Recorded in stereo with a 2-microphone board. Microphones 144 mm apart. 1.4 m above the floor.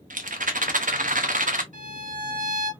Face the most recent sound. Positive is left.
turn(degrees=-65)  # may be behind; listen again after turning